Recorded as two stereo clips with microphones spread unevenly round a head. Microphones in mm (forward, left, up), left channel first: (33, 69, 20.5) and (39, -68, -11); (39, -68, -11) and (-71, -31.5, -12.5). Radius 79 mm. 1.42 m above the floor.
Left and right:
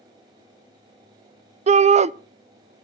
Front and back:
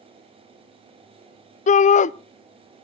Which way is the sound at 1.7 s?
40° right.